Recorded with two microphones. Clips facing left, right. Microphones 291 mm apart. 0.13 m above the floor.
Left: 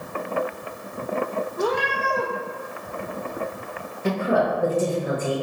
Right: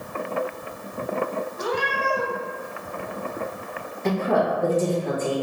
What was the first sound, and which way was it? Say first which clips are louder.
A cat meowing: left 4 dB; 65° left (ahead or behind).